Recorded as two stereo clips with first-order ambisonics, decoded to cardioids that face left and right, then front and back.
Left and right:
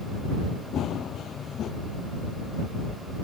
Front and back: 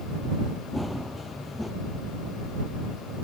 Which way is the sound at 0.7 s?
80° left.